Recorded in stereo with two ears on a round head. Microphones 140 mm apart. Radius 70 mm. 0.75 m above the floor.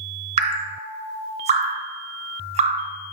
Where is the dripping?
40° right (ahead or behind), 0.6 m.